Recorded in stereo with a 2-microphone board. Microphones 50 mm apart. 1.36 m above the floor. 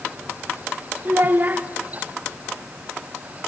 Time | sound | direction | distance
1.1 | a child speaking | 40° right (ahead or behind) | 0.8 m